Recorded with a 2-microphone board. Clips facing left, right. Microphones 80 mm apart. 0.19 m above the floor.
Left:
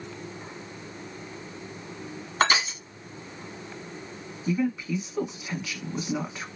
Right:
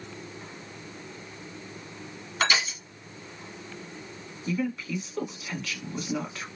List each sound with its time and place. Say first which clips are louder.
2.4 s crushing: left 3 dB; 40° left (ahead or behind), 1.2 m
4.5 s a woman speaking: left 3 dB; 15° left (ahead or behind), 1.3 m